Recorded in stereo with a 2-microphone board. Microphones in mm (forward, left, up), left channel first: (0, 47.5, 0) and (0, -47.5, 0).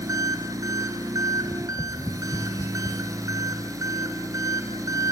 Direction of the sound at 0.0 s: 35° right (ahead or behind).